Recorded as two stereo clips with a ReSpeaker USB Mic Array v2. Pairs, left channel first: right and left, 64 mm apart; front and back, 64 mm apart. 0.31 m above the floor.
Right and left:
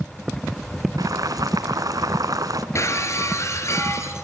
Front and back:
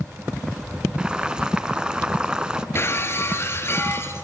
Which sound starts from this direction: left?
Boiling, at 1.0 s.